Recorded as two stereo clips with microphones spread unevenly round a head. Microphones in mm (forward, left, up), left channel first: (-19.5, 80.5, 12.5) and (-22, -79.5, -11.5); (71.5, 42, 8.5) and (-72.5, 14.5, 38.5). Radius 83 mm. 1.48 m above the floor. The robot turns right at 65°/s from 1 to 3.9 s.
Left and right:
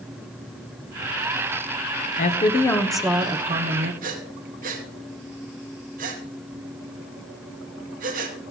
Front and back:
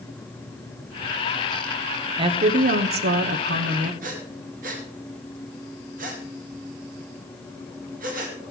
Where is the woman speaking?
130° left, 1.1 m; by 3.9 s 115° right, 1.1 m.